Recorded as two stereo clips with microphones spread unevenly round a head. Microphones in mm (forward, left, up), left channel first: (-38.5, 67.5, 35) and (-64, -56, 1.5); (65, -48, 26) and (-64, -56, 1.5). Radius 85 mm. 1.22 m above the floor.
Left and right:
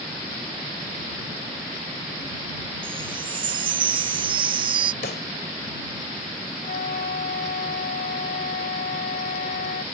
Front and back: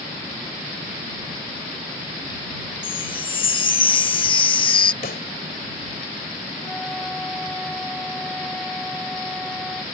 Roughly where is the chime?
Ahead right.